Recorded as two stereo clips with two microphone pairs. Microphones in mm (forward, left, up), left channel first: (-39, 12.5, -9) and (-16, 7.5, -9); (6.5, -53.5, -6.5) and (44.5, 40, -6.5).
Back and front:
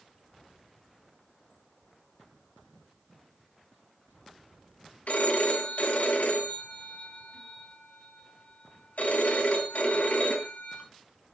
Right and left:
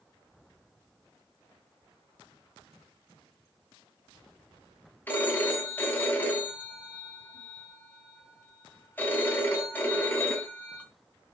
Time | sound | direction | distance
5.1 | a phone ringing | 175° left | 2.5 m